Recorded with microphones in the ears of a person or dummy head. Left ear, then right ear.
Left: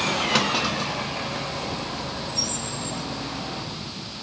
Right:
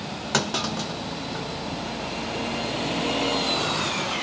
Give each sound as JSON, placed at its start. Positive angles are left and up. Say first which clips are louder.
{"t": 0.3, "sound": "a clunk", "louder": "left 3 dB", "side_deg": -60, "distance_m": 1.8}